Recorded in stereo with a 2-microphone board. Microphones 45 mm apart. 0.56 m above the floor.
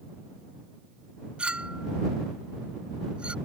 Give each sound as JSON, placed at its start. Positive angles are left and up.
{"t": 1.4, "sound": "a clink", "side_deg": -25}